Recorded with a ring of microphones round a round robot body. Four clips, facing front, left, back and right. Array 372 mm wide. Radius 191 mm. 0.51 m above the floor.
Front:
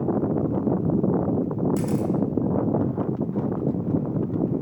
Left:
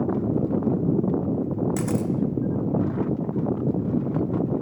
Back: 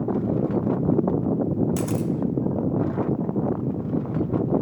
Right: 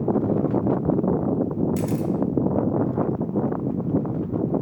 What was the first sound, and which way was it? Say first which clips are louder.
A camera shutter: right 1 dB, front 1 dB; 135° left.